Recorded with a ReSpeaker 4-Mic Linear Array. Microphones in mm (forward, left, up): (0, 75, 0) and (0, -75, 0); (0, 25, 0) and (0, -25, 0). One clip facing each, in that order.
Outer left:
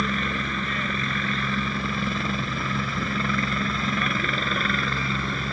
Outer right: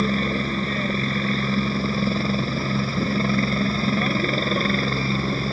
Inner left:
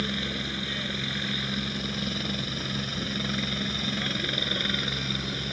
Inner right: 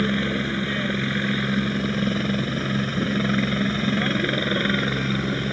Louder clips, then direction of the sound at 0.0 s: Outer right 5 dB, inner right 8 dB; 30° right (ahead or behind).